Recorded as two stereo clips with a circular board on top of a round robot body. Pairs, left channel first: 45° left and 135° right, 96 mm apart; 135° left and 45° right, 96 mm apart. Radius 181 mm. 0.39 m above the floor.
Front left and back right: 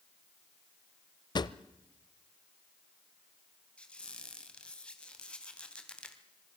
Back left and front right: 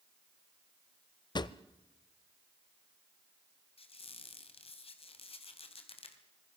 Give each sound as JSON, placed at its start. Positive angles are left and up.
{"t": 1.4, "sound": "a drawer", "azimuth_deg": 90, "distance_m": 0.7}
{"t": 3.8, "sound": "a squeak", "azimuth_deg": 125, "distance_m": 2.5}